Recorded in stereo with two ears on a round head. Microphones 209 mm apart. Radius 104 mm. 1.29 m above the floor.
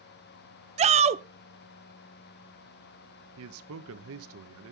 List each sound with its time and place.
0.8 s a shout: 30° right (ahead or behind), 0.7 m
3.4 s a man speaking: 65° right (ahead or behind), 0.9 m